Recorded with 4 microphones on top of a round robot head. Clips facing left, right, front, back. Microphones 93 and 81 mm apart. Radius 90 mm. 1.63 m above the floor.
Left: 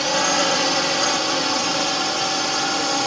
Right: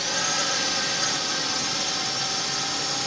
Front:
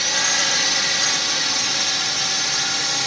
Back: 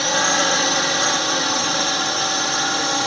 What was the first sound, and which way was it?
A drone, 135° left.